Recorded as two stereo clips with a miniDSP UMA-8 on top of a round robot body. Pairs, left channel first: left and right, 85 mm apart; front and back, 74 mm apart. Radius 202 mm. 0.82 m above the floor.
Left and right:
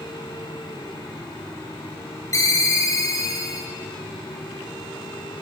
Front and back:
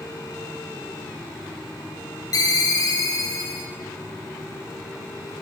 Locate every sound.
2.3 s a ringtone: 35° left, 1.5 m